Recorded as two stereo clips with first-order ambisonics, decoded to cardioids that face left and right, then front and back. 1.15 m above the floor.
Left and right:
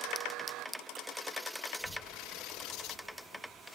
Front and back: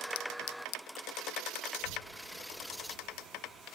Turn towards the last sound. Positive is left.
turn(degrees=-160)